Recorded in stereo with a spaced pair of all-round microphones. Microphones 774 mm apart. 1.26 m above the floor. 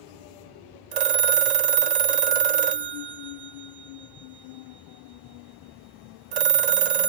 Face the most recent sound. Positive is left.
turn(degrees=-60)  # may be behind; listen again after turning